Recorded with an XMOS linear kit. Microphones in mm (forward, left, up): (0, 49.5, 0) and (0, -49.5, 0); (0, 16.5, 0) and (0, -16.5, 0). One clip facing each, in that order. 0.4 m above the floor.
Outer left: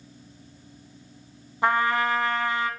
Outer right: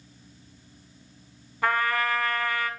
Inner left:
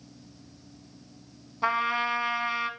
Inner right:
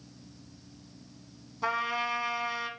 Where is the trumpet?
25° left (ahead or behind), 1.2 m.